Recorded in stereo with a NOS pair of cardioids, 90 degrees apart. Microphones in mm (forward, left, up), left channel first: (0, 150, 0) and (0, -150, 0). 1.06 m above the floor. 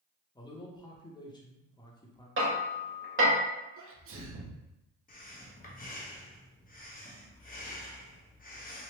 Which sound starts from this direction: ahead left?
Breathing, at 5.1 s.